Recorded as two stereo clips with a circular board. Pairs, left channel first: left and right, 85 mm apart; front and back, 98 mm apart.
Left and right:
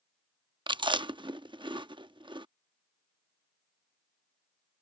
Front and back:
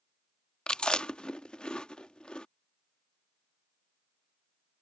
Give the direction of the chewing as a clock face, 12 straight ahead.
3 o'clock.